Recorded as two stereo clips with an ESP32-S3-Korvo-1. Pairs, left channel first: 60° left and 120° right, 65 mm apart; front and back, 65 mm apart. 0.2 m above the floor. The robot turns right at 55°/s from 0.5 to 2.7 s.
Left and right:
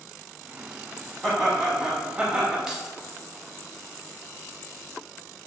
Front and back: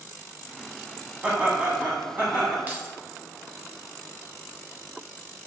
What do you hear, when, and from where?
1.2 s laughter: 140° left, 1.0 m; by 2.6 s 145° right, 1.0 m
2.7 s keys jangling: 170° left, 0.8 m